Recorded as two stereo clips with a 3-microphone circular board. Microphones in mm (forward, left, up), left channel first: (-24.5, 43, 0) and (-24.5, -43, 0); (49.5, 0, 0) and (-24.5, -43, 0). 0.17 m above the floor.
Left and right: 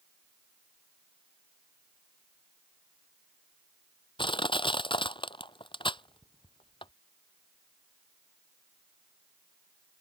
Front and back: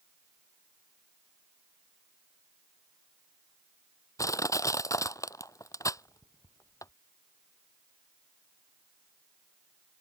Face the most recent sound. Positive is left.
turn(degrees=80)